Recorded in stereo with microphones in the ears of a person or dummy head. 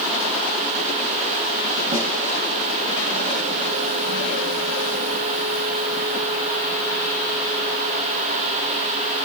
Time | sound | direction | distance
1.9 | a snare drum | 30° right (ahead or behind) | 4 m